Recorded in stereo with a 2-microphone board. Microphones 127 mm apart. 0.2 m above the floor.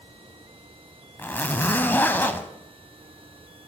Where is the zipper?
15° left (ahead or behind), 0.5 m.